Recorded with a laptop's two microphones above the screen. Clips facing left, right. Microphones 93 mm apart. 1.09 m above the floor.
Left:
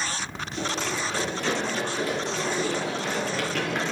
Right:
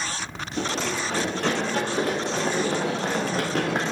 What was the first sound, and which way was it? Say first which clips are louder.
Running footsteps: right 2 dB; 65° right (ahead or behind).